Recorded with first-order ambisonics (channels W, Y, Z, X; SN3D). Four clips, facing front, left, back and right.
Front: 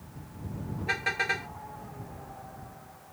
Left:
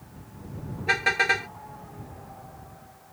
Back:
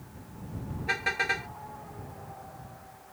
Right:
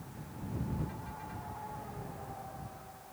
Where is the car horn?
90° left.